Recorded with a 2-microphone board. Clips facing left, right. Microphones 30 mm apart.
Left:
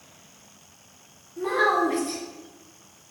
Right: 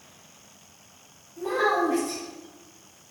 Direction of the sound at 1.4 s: 45° left (ahead or behind).